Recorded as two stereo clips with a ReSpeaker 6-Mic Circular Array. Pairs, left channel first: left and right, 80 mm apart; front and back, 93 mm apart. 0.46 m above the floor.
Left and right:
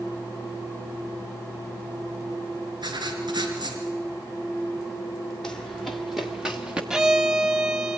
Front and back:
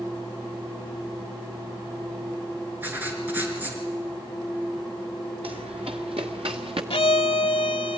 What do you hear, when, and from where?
2.8 s writing: 110° right, 4.5 m
5.4 s running footsteps: 170° left, 2.5 m; by 6.8 s 170° right, 2.5 m
6.9 s a violin: 10° right, 0.6 m